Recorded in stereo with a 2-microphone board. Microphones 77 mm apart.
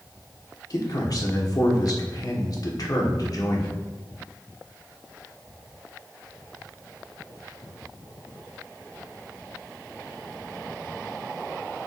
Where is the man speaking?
55° left (ahead or behind), 1.4 m.